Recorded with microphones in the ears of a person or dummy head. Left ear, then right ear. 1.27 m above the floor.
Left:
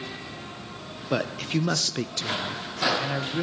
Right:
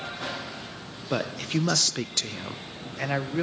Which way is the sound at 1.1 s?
5° left (ahead or behind).